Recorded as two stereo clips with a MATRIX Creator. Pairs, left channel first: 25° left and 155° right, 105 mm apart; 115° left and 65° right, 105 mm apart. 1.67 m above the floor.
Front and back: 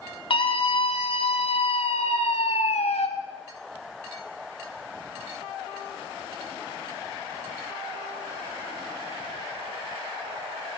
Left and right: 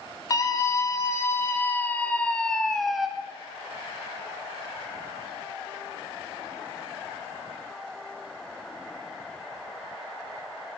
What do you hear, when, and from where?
0.3 s a scream: 55° left, 4.5 m; by 3.1 s 20° left, 3 m